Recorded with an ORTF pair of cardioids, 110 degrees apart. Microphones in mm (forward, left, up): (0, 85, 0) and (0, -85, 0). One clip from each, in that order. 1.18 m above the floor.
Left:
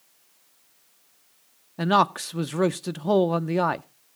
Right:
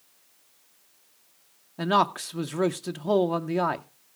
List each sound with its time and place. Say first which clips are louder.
1.8 s a man speaking: left 2 dB; 15° left, 0.6 m